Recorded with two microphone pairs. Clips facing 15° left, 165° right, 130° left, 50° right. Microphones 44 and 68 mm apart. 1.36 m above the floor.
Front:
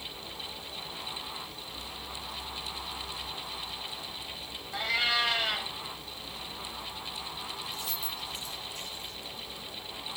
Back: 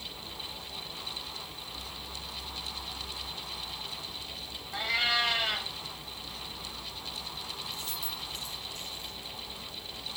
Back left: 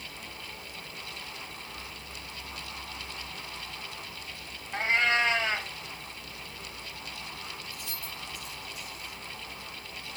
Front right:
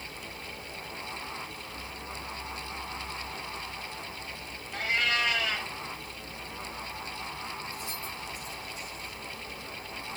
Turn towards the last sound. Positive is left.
turn(degrees=150)